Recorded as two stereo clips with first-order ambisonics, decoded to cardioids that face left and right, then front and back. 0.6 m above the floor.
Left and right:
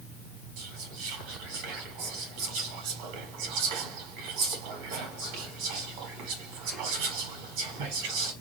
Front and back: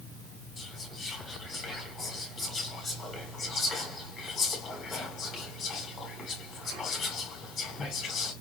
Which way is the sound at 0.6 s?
80° right.